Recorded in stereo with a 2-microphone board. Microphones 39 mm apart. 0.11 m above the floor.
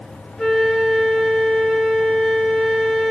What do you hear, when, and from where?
0.4 s a flute: 10° left (ahead or behind), 1.5 m